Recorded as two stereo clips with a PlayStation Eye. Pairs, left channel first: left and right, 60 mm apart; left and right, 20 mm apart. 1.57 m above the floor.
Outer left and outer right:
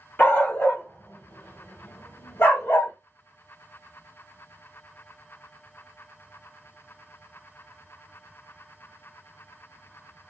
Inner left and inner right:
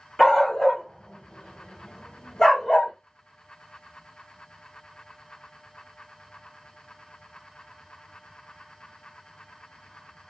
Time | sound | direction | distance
0.2 | a dog barking | 25° left (ahead or behind) | 2.5 m